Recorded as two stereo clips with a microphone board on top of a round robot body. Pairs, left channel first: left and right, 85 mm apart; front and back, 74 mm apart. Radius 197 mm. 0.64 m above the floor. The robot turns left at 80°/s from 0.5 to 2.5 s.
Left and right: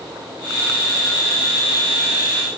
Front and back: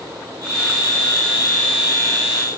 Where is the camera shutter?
I don't hear a camera shutter.